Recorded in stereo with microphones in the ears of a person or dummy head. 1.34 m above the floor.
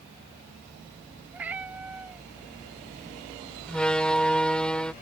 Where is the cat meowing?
10° right (ahead or behind).